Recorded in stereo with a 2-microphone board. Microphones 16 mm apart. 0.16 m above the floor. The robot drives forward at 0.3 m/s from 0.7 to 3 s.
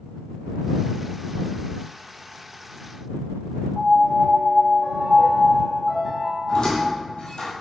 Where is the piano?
Centre (ahead or behind), 1.2 m.